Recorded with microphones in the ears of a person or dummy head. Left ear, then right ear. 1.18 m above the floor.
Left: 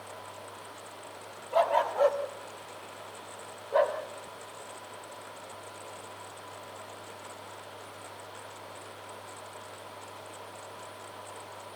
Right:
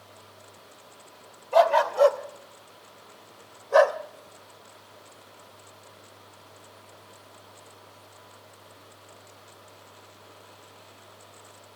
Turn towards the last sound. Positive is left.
turn(degrees=-40)  # may be behind; listen again after turning